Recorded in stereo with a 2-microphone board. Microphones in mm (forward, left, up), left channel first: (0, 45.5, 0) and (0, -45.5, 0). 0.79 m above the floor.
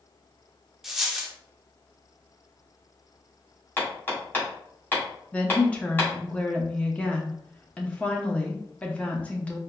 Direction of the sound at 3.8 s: 20° left (ahead or behind).